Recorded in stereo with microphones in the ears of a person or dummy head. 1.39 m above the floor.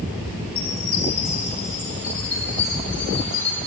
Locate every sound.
0.6 s a chime: 10° left (ahead or behind), 0.9 m